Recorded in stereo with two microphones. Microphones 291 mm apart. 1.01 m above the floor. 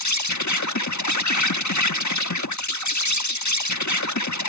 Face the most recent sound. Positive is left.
turn(degrees=85)